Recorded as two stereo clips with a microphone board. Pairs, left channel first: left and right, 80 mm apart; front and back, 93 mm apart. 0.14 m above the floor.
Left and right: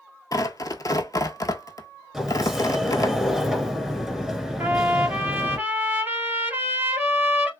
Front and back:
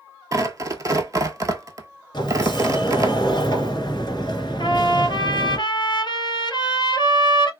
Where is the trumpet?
25° right, 1.1 m.